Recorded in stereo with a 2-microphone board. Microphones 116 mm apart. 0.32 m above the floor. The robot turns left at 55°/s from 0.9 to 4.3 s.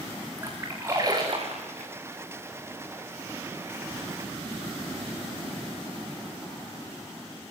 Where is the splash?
25° right (ahead or behind), 7 m; by 1.9 s 80° right, 7 m.